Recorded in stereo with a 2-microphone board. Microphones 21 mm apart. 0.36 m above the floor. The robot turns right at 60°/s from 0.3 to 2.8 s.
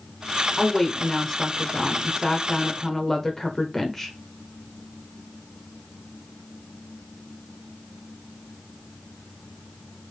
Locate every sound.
0.6 s a woman speaking: centre (ahead or behind), 0.8 m; by 4.2 s 15° left (ahead or behind), 0.8 m